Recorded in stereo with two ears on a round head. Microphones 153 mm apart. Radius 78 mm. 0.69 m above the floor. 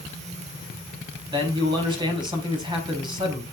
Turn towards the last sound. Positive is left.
turn(degrees=-30)  # may be behind; listen again after turning